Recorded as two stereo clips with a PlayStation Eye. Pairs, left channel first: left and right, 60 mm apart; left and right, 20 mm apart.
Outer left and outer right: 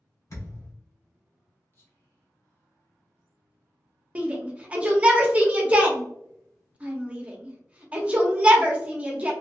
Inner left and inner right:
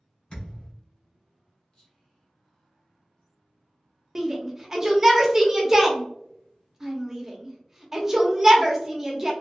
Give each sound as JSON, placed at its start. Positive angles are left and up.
{"t": 0.3, "sound": "a thud", "side_deg": 55, "distance_m": 1.2}
{"t": 1.7, "sound": "whispering", "side_deg": 40, "distance_m": 1.5}
{"t": 4.2, "sound": "a shout", "side_deg": -20, "distance_m": 0.7}